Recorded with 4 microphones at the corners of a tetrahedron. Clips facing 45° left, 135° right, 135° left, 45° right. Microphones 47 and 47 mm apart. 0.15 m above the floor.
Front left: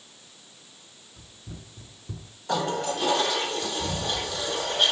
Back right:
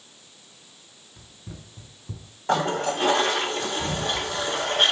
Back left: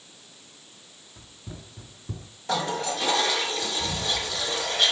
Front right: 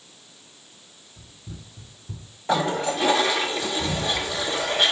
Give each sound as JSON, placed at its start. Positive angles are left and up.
{"t": 1.2, "sound": "running footsteps", "azimuth_deg": 175, "distance_m": 1.2}
{"t": 2.5, "sound": "a toilet flushing", "azimuth_deg": -110, "distance_m": 0.9}